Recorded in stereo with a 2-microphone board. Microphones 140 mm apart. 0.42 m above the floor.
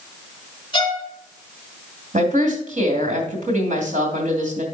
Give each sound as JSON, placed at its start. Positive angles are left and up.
{"t": 0.7, "sound": "a violin", "side_deg": 35, "distance_m": 2.5}
{"t": 2.1, "sound": "a woman speaking", "side_deg": -65, "distance_m": 2.5}